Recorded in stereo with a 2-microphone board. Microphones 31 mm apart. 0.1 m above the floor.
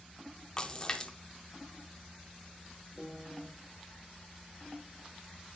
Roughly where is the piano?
Centre.